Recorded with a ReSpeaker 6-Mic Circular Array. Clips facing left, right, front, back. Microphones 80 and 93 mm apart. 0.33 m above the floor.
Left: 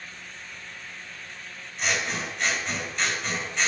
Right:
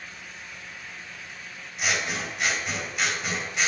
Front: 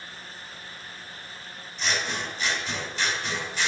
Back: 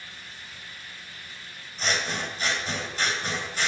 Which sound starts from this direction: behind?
Scissors, at 1.8 s.